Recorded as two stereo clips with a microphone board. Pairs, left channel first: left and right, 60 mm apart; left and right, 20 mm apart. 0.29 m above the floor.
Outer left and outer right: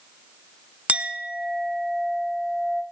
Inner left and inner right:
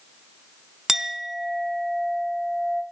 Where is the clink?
20° right (ahead or behind), 1.5 m.